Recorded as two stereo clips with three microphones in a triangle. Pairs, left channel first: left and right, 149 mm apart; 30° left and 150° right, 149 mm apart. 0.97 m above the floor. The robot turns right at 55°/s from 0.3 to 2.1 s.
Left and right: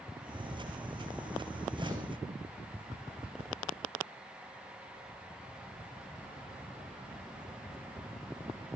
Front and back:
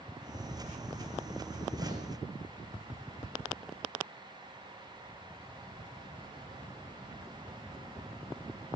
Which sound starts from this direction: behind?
A gunshot, at 1.8 s.